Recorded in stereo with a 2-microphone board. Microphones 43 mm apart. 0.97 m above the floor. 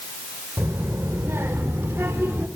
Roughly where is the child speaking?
Right.